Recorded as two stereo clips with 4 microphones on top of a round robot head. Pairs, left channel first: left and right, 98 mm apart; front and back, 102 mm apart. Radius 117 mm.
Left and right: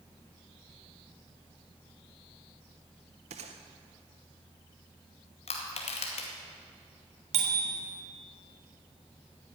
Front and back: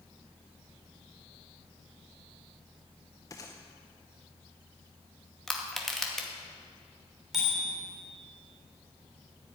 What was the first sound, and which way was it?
A gunshot, 70° right.